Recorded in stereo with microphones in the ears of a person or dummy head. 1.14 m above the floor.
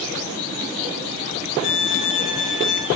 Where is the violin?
65° left (ahead or behind), 4.5 m.